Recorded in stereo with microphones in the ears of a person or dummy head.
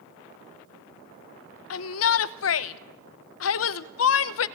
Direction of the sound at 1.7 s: 70° left (ahead or behind).